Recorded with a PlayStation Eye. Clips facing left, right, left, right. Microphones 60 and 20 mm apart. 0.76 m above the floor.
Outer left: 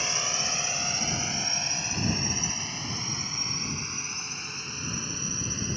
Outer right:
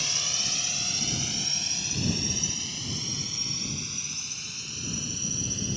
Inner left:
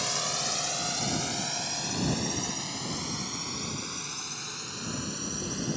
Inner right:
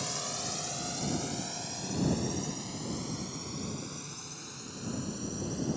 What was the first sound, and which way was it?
A drone, 30° left (ahead or behind).